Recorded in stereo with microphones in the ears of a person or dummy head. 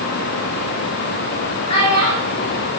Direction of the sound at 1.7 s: 25° left (ahead or behind).